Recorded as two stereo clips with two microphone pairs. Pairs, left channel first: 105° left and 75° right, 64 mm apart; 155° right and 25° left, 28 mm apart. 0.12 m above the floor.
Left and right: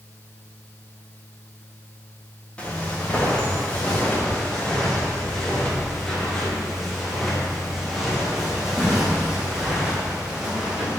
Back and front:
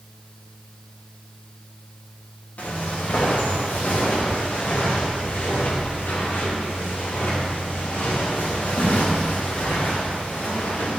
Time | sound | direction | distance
2.6 | footsteps | straight behind | 7.5 m